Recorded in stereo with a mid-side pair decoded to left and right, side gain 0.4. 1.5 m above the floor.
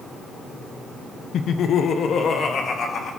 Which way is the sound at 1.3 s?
65° left.